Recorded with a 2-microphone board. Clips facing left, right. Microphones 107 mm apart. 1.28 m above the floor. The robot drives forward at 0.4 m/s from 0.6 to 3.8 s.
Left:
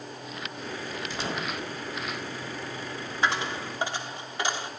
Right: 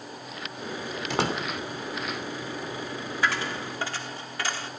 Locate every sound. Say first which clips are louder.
1.1 s a door slam: right 7 dB; 80° right, 2.5 m
3.2 s a dropped coin: left 1 dB; 20° left (ahead or behind), 1.3 m